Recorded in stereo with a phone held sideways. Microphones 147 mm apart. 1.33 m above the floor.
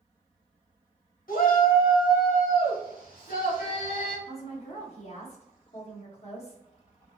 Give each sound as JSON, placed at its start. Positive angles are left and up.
{"t": 1.3, "sound": "a shout", "side_deg": 75, "distance_m": 1.2}
{"t": 4.3, "sound": "a woman speaking", "side_deg": 45, "distance_m": 1.5}